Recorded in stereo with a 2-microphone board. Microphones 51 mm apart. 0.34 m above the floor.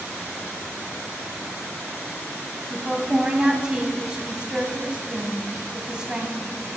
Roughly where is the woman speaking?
Centre.